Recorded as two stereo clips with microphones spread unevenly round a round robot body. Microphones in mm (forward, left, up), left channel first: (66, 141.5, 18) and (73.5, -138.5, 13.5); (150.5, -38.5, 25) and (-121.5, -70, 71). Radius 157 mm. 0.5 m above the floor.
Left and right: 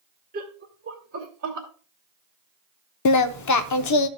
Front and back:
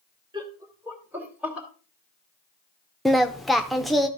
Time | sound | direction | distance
0.3 | laughter | 100° right | 1.3 m
3.0 | singing | 90° left | 0.6 m